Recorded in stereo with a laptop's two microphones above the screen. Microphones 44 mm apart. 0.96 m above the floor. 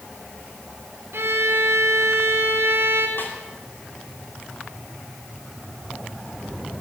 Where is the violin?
65° right (ahead or behind), 1.5 m.